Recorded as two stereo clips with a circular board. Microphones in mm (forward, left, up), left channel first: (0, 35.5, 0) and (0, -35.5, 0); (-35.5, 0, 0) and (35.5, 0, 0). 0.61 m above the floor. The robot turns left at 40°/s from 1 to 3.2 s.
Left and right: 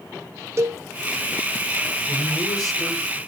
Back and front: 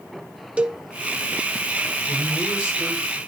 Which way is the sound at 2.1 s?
95° left.